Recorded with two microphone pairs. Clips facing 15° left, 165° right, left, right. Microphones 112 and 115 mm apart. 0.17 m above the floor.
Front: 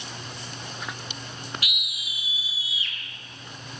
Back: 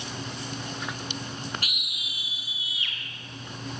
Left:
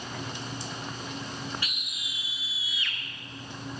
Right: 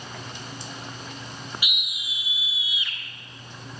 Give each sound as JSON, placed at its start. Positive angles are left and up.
{"t": 1.6, "sound": "a scream", "azimuth_deg": -160, "distance_m": 1.5}